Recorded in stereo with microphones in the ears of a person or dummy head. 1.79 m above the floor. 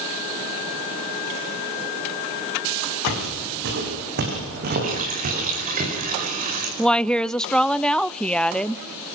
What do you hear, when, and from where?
3.1 s footsteps: 60° right (ahead or behind), 8.5 m; by 5.8 s 35° right (ahead or behind), 9 m
4.8 s a running tap: 40° right (ahead or behind), 5.5 m
6.8 s a woman speaking: 5° left (ahead or behind), 0.6 m